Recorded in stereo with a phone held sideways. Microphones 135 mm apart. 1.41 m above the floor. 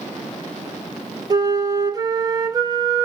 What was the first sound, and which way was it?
A flute, 30° right (ahead or behind).